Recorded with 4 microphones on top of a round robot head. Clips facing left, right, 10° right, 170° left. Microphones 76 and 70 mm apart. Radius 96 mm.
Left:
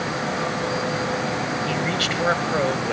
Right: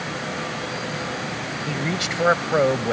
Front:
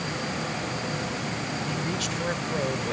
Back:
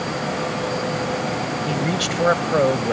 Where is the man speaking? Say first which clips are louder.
Left 2 dB, back 7 dB; 165° right; by 2.9 s 150° right.